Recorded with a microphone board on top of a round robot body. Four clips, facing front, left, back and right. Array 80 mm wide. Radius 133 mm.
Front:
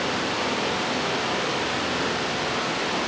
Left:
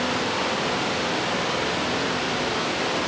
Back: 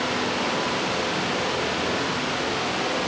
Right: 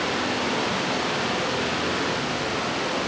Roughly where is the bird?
I don't hear a bird.